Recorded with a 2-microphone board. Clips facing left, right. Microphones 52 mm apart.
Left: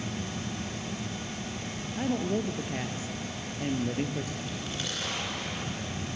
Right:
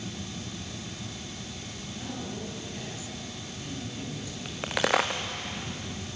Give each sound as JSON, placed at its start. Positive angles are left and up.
{"t": 2.0, "sound": "a woman speaking", "side_deg": 45, "distance_m": 2.0}
{"t": 4.5, "sound": "a crack", "side_deg": -75, "distance_m": 2.5}